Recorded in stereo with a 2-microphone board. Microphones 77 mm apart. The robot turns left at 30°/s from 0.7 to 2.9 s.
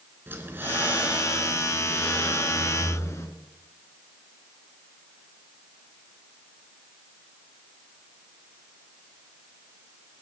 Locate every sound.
0.3 s breathing: 150° right, 3 m; by 3.3 s 140° left, 3 m